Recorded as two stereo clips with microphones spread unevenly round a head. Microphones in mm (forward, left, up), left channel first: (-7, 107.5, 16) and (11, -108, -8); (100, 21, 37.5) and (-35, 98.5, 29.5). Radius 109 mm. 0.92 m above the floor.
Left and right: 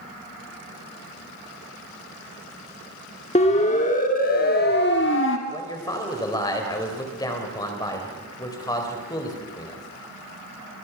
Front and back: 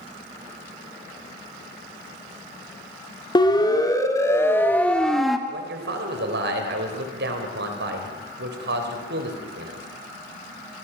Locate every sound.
3.4 s a siren: 30° left, 3 m; by 5.4 s 65° left, 2 m
5.5 s a man speaking: 170° left, 4 m